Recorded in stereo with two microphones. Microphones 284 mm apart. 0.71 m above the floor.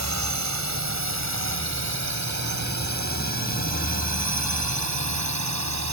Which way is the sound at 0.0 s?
70° right (ahead or behind).